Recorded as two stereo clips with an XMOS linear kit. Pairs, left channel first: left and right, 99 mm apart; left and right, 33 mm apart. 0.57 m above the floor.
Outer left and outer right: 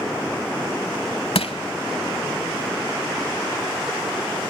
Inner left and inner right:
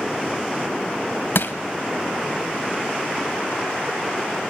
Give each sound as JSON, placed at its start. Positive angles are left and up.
{"t": 1.4, "sound": "crushing", "side_deg": 75, "distance_m": 0.9}